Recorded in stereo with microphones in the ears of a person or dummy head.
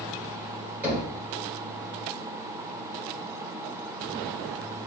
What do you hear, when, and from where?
0.8 s knocking: 10° right (ahead or behind), 1.2 m